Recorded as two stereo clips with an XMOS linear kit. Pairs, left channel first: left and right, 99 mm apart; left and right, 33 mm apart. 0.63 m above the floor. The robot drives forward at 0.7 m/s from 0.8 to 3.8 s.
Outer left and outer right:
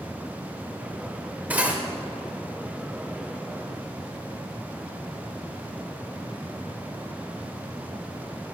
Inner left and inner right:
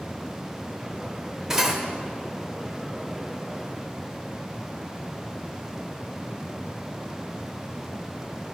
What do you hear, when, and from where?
1.5 s cutlery clinking: 15° right (ahead or behind), 1.3 m